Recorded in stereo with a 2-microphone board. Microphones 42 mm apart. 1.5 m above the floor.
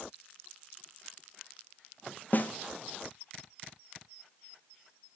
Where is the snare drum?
45° left (ahead or behind), 0.9 m.